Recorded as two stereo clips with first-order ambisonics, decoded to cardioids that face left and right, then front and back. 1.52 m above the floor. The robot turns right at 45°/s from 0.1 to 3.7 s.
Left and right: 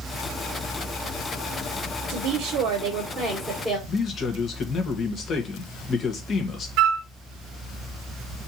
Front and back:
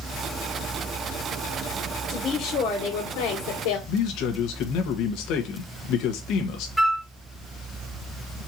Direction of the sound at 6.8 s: 90° right.